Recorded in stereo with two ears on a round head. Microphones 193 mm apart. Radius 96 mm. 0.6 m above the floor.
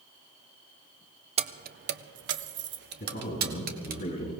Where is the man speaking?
40° left (ahead or behind), 4 m.